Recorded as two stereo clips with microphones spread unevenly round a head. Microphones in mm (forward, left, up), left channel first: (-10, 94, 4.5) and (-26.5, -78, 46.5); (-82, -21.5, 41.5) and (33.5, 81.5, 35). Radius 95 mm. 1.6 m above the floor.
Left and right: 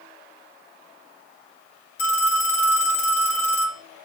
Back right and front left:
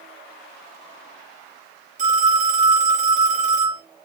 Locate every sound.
2.0 s a phone ringing: 80° left, 2.5 m